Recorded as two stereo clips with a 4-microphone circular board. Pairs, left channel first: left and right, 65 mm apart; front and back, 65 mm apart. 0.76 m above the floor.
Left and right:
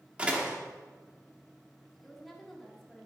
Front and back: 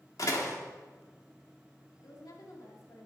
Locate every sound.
0.2 s a door slam: 20° right, 1.4 m
2.0 s a woman speaking: 5° left, 1.9 m